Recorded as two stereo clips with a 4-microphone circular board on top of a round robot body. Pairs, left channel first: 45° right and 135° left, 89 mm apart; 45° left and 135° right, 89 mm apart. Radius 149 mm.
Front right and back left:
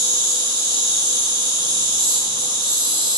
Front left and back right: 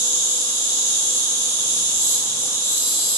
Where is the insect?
105° left, 1.3 m.